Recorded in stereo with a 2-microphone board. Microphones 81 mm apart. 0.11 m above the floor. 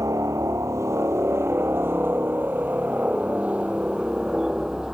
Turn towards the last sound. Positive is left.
turn(degrees=-5)  # may be behind; listen again after turning